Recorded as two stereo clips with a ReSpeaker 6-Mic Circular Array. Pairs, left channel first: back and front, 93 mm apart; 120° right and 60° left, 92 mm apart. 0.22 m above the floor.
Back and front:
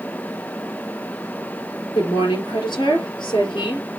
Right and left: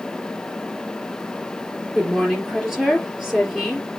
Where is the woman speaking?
145° left, 4 m.